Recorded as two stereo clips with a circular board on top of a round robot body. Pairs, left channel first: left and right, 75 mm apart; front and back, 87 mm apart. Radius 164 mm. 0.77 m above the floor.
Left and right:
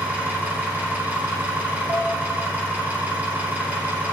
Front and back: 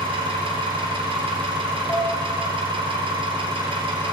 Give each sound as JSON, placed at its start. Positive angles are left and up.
{"t": 0.0, "sound": "an engine running", "azimuth_deg": -160, "distance_m": 1.1}
{"t": 1.9, "sound": "dishes clattering", "azimuth_deg": -55, "distance_m": 4.0}